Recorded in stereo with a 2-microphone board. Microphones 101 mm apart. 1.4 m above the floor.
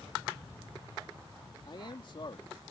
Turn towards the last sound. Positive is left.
turn(degrees=50)  # may be behind; listen again after turning